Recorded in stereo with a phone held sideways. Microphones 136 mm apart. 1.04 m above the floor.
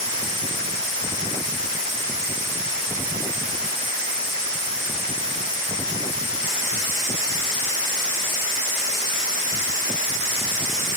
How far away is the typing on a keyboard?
I don't hear typing on a keyboard.